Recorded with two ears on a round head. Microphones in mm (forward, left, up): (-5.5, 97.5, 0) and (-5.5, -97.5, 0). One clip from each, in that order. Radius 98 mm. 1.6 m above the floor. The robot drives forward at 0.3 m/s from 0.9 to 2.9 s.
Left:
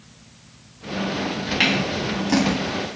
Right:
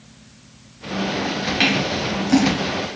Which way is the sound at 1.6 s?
Centre (ahead or behind).